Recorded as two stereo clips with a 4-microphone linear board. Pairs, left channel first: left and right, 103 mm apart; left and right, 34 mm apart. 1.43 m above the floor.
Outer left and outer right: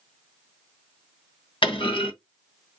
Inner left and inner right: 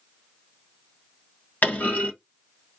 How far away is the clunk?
About 2.5 m.